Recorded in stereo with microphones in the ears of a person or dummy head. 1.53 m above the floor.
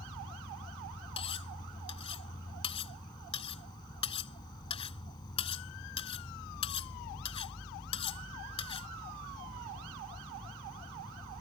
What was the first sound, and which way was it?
An insect, 20° left (ahead or behind).